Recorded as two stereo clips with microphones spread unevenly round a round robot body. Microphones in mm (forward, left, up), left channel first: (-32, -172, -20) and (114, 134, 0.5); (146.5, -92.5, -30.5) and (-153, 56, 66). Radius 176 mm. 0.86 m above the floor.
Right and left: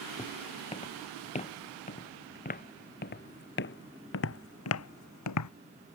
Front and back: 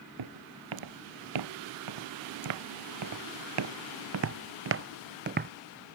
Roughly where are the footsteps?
Behind.